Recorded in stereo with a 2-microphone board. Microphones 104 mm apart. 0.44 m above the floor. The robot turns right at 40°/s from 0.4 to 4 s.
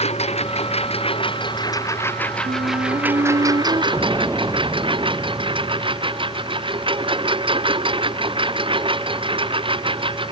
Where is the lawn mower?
90° left; by 10.3 s 55° right (ahead or behind).